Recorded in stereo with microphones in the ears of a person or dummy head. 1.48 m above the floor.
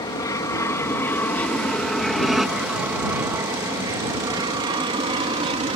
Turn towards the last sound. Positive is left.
turn(degrees=-30)  # may be behind; listen again after turning